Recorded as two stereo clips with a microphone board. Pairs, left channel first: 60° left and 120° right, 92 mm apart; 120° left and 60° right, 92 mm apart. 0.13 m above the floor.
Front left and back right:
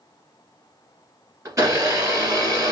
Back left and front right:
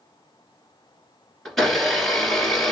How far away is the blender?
About 2 m.